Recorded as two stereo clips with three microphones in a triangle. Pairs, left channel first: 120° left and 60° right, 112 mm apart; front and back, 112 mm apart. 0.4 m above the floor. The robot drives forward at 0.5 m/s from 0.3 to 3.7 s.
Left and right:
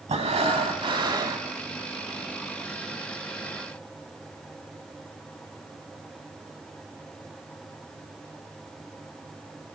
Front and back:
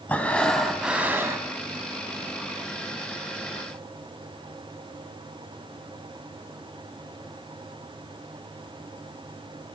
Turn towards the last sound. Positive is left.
turn(degrees=-155)